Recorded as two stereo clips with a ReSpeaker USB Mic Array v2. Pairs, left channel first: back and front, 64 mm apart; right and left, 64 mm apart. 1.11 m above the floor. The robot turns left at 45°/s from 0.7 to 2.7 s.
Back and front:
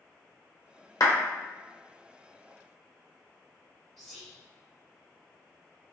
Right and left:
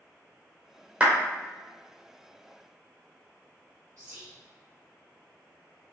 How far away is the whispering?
About 0.9 m.